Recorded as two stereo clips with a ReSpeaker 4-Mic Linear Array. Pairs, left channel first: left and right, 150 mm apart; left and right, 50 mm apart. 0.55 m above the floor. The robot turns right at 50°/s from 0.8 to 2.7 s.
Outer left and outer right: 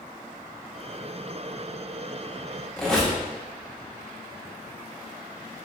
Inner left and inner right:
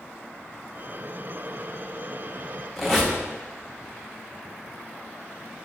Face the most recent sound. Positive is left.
turn(degrees=5)  # may be behind; listen again after turning